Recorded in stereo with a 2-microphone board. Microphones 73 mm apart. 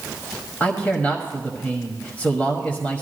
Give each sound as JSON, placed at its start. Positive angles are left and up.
{"t": 0.6, "sound": "a man speaking", "side_deg": 20, "distance_m": 1.2}